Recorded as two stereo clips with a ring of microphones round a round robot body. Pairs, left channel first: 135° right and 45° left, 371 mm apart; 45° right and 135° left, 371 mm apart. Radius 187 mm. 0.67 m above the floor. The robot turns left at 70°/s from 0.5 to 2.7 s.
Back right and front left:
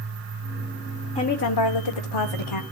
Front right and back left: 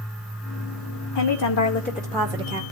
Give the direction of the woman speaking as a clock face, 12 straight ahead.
2 o'clock.